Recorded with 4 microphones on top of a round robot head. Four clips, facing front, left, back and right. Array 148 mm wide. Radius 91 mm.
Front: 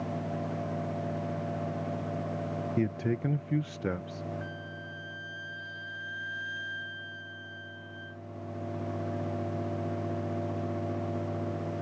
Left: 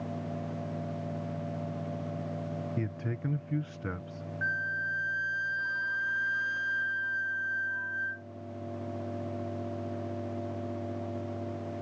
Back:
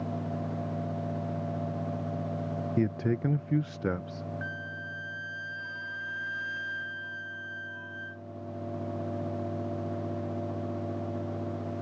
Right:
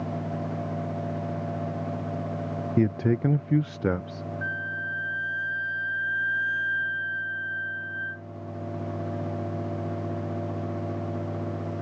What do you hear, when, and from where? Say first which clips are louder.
2.8 s a man speaking: right 12 dB, back 2 dB; 100° right
4.4 s a flute: left 1 dB, back 3 dB; 120° left